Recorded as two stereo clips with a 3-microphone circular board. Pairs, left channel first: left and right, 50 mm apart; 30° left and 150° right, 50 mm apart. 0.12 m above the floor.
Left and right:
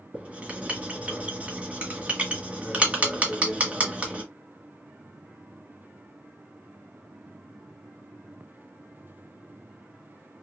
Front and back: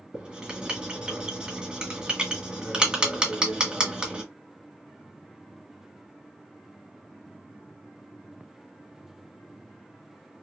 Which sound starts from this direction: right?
Writing, at 0.1 s.